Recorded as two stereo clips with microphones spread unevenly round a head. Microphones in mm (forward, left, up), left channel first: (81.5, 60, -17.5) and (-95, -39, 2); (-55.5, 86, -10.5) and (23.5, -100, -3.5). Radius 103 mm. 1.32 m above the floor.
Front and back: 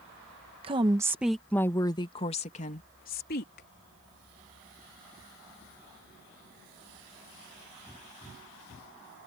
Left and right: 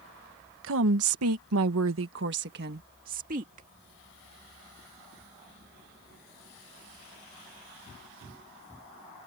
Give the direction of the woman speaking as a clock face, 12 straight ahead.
3 o'clock.